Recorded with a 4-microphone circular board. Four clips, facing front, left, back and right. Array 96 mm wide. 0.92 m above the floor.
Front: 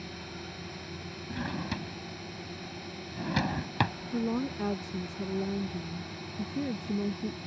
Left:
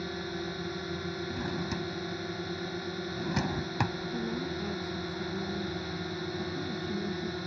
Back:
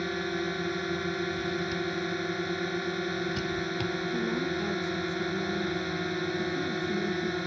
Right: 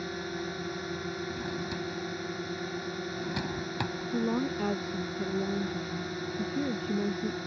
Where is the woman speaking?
60° right.